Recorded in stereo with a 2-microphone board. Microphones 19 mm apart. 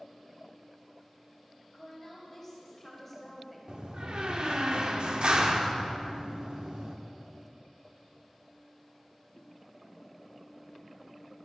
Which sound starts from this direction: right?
A door slam, at 3.7 s.